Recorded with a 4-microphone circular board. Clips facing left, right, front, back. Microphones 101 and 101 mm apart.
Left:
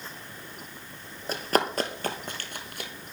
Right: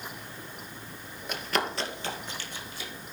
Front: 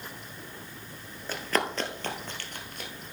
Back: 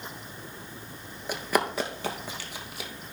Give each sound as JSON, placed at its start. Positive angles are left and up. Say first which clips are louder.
{"t": 1.3, "sound": "running footsteps", "louder": "left 5 dB, back 2 dB", "azimuth_deg": 115, "distance_m": 1.0}